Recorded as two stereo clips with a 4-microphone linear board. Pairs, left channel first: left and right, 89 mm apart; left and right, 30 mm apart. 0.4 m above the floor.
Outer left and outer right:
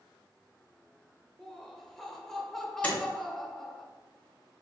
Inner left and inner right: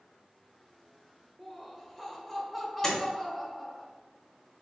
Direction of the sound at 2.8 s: 15° left (ahead or behind).